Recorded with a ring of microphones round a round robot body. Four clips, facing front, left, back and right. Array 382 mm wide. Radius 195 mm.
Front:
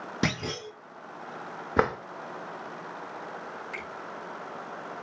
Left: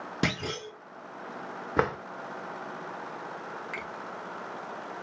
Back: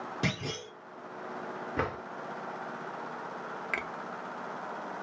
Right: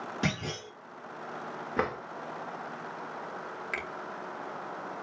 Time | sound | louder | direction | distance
0.2 | a clunk | left 4 dB, front 6 dB | 40° left | 1.6 m
1.8 | a drawer | left 4 dB, front 9 dB | 25° left | 0.7 m
3.7 | a finger snap | right 1 dB, back 3 dB | 160° right | 0.7 m